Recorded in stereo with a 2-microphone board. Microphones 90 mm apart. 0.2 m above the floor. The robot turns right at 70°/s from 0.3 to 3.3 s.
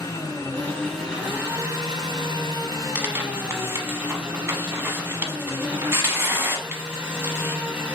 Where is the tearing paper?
15° right (ahead or behind), 0.8 m; by 7.6 s 30° right (ahead or behind), 0.8 m.